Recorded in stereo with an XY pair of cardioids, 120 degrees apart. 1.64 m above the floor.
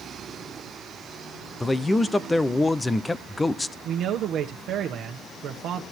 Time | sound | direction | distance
1.6 | a man speaking | 10° left | 0.9 m
3.9 | a man speaking | 60° right | 1.5 m